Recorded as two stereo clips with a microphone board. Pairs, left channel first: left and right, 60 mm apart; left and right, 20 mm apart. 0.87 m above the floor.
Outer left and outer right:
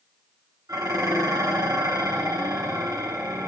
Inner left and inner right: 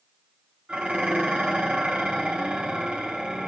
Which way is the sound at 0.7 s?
75° right (ahead or behind).